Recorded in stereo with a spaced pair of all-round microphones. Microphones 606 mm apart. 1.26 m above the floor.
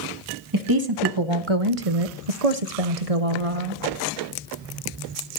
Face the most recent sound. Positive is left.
turn(degrees=-55)  # may be behind; listen again after turning